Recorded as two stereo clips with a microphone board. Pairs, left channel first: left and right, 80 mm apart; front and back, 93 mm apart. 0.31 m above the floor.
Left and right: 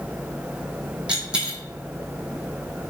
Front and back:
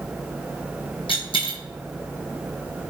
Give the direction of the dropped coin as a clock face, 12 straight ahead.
12 o'clock.